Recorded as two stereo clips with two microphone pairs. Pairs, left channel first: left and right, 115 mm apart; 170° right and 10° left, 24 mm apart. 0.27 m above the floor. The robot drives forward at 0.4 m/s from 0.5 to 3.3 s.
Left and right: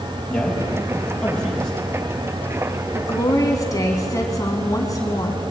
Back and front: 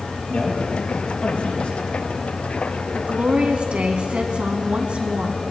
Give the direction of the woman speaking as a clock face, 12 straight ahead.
11 o'clock.